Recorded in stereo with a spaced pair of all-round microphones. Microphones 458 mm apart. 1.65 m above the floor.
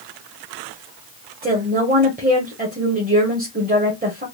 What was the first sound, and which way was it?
A woman speaking, 20° right (ahead or behind).